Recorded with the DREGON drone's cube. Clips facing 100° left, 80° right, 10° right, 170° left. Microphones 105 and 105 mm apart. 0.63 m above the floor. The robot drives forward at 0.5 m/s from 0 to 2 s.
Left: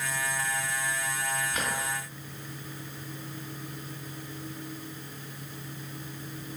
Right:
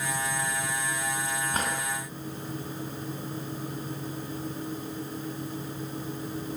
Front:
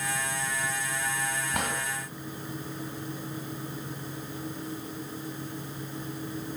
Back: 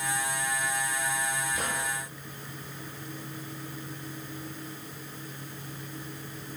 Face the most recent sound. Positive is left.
turn(degrees=-30)